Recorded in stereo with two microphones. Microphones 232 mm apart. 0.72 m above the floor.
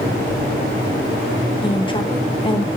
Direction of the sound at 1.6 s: 25° left (ahead or behind).